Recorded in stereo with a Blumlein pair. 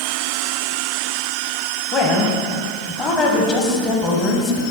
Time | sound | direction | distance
1.9 | a woman speaking | 30° left | 1.3 m